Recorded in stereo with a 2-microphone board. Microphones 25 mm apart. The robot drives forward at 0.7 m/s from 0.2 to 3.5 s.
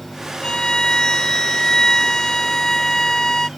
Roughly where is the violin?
Left.